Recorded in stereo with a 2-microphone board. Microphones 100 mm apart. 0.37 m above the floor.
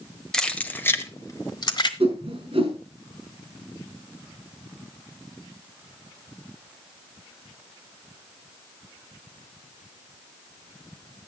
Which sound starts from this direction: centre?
Keys jangling, at 0.3 s.